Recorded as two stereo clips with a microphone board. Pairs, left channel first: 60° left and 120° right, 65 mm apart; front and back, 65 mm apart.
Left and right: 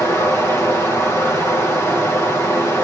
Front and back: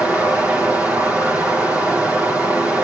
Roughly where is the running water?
Behind left.